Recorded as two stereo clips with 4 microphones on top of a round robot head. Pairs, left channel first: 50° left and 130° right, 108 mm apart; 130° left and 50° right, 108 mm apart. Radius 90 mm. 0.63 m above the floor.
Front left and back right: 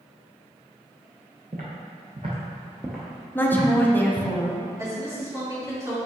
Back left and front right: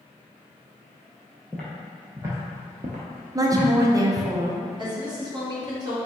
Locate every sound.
1.5 s footsteps: 145° right, 0.9 m; by 4.3 s 10° right, 1.2 m
3.4 s a woman speaking: 15° right, 0.7 m
4.8 s a woman speaking: 80° right, 1.6 m